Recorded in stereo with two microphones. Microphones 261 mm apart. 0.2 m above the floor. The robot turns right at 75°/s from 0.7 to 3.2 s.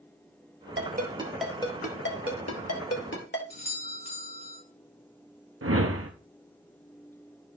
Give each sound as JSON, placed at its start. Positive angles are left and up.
{"t": 0.8, "sound": "a ringtone", "side_deg": -50, "distance_m": 1.7}
{"t": 3.5, "sound": "a doorbell", "side_deg": -40, "distance_m": 2.5}
{"t": 5.6, "sound": "a whoosh", "side_deg": -60, "distance_m": 1.0}